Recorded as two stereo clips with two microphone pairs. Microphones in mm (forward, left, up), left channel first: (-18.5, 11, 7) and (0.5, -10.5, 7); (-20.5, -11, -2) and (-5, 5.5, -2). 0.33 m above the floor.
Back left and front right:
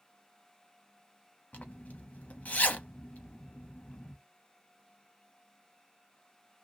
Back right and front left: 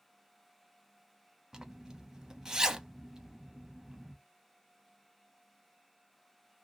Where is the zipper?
110° left, 0.6 m.